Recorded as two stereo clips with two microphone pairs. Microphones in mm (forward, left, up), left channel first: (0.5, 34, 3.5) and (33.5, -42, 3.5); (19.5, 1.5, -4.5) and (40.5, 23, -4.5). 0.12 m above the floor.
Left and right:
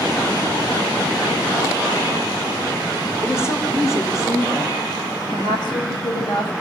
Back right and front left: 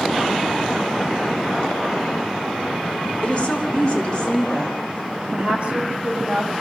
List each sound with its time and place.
3.2 s a woman speaking: 170° left, 6.5 m; by 4.8 s 160° left, 7.5 m
5.3 s a woman speaking: 90° left, 6.5 m